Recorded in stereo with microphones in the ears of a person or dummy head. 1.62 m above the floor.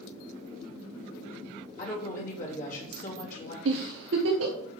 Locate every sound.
1.8 s a woman speaking: 45° left (ahead or behind), 2.5 m
3.6 s a giggle: 65° right (ahead or behind), 1.0 m